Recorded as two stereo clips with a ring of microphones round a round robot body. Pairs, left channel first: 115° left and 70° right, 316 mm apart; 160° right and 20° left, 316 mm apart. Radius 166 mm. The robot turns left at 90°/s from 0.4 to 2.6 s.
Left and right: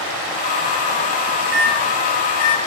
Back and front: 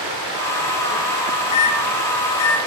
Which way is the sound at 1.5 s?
120° right.